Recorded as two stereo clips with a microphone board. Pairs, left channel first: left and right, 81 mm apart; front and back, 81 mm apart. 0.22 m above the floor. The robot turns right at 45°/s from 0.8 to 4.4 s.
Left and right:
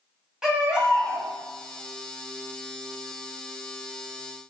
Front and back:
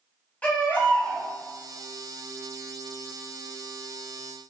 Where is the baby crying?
30° right, 0.8 m; by 1.3 s 10° right, 0.8 m.